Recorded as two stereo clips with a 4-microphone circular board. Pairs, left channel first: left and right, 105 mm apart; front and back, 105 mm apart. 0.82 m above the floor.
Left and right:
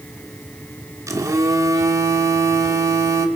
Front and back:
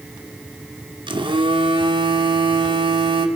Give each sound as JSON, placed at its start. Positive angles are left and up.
{"t": 1.1, "sound": "a phone buzzing", "azimuth_deg": -145, "distance_m": 2.5}